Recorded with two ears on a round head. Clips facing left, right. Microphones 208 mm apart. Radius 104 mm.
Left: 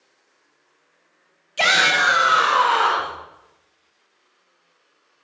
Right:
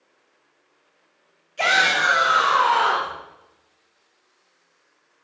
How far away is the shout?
About 1.1 m.